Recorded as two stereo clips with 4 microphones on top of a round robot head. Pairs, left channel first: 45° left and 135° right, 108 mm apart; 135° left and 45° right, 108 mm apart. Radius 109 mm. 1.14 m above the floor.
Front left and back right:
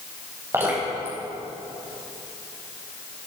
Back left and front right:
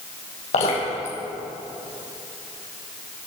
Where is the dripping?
155° left, 5 m.